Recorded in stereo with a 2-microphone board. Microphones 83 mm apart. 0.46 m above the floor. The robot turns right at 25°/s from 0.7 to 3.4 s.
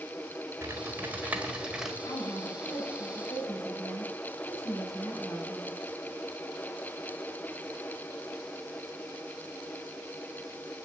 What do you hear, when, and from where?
0.6 s typing on a keyboard: 35° right, 1.5 m; by 1.9 s 5° right, 1.5 m
2.0 s a woman speaking: 110° left, 5 m; by 5.8 s 145° left, 5 m